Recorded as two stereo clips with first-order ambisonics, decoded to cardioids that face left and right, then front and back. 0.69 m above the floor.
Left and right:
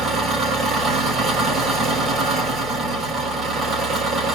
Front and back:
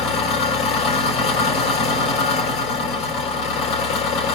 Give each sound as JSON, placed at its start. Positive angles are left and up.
{"t": 0.0, "sound": "an engine running", "azimuth_deg": -30, "distance_m": 2.5}